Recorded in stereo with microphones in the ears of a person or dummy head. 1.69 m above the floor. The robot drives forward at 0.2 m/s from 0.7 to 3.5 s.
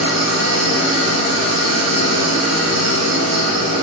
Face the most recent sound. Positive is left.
turn(degrees=-45)  # may be behind; listen again after turning